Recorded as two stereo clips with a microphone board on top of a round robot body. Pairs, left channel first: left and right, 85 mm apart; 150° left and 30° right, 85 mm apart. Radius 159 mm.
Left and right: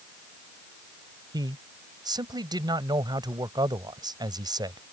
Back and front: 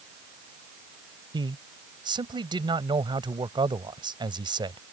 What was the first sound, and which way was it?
A man speaking, 55° right.